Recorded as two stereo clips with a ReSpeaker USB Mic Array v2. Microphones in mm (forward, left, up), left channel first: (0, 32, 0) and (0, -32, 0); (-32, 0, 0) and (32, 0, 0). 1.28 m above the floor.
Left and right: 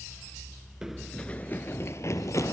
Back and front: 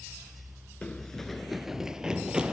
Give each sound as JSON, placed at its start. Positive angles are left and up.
{"t": 0.8, "sound": "running footsteps", "azimuth_deg": -150, "distance_m": 1.3}